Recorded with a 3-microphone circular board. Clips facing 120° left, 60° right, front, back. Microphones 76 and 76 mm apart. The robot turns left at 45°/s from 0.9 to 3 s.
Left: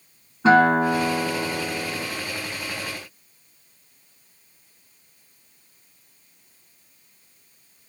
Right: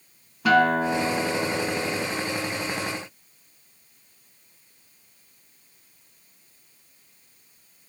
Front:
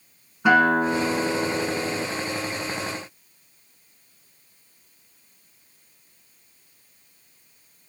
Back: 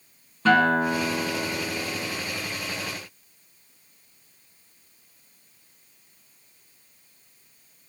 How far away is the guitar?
About 1.7 m.